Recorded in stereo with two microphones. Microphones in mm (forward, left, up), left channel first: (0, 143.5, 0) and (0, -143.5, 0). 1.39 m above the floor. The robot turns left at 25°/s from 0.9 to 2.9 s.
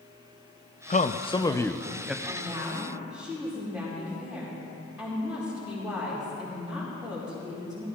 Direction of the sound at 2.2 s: 25° right (ahead or behind).